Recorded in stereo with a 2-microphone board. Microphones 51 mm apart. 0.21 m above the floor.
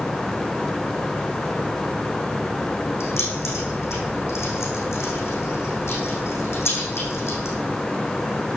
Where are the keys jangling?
55° left (ahead or behind), 8.5 m.